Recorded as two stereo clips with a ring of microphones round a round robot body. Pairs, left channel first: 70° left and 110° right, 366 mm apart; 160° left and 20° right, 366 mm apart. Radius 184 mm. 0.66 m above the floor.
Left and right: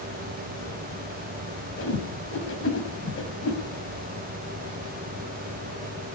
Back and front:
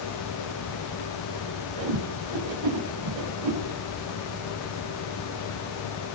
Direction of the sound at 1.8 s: 10° left.